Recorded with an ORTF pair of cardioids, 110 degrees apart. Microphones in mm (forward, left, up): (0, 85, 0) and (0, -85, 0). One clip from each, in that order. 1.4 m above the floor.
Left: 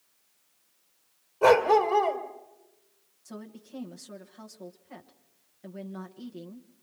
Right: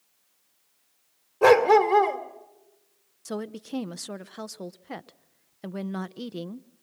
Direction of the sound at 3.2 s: 65° right.